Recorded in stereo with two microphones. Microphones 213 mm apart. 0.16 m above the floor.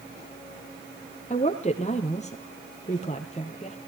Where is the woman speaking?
35° left (ahead or behind), 4 m.